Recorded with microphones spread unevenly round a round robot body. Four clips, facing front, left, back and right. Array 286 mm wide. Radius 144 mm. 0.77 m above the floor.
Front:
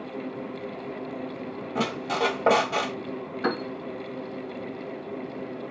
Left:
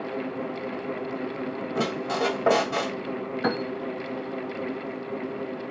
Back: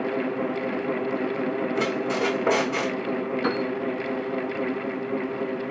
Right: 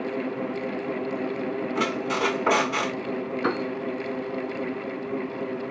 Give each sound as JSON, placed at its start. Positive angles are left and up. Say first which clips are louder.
{"t": 1.8, "sound": "a squeak", "louder": "left 1 dB, back 3 dB", "azimuth_deg": 35, "distance_m": 1.9}
{"t": 3.4, "sound": "a piano", "louder": "even, front 1 dB", "azimuth_deg": 80, "distance_m": 2.5}